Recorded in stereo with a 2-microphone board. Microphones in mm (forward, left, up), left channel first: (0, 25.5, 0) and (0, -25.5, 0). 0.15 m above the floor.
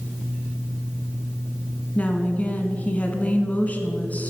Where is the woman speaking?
30° left (ahead or behind), 1.5 m.